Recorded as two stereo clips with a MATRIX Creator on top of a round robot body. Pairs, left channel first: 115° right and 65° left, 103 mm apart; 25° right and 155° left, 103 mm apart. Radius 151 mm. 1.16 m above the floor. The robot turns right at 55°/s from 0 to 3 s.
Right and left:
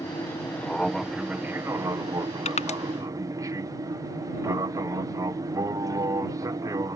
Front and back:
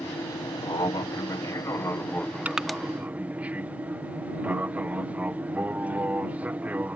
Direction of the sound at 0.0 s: 75° right.